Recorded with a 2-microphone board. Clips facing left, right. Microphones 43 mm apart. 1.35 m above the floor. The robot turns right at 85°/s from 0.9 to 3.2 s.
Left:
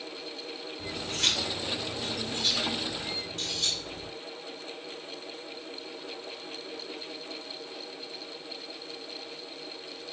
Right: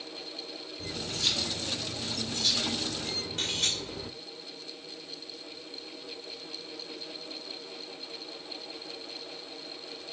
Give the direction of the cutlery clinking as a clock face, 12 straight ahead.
11 o'clock.